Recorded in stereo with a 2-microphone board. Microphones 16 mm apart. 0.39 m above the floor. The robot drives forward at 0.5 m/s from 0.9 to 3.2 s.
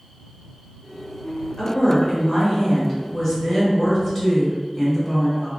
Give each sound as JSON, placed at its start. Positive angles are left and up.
{"t": 1.6, "sound": "a woman speaking", "side_deg": 30, "distance_m": 1.7}